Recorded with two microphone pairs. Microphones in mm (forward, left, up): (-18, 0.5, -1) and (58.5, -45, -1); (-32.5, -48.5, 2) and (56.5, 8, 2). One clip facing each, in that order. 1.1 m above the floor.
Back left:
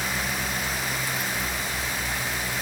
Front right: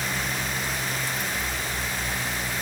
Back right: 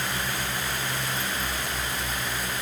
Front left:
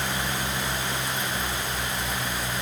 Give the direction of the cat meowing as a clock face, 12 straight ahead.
I don't hear a cat meowing.